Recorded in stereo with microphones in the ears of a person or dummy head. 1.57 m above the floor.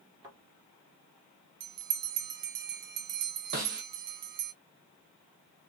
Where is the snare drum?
45° right (ahead or behind), 1.9 m.